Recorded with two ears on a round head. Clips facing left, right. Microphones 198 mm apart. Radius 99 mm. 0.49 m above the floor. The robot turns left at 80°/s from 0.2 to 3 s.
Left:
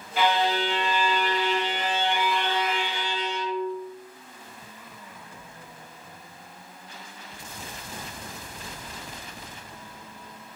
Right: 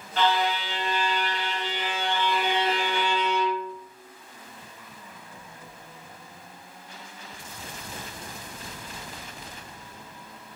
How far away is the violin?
About 0.6 m.